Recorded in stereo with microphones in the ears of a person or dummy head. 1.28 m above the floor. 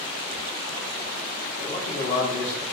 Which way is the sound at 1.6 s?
45° left (ahead or behind).